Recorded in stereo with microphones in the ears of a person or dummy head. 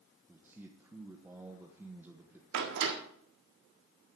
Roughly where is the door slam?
Right.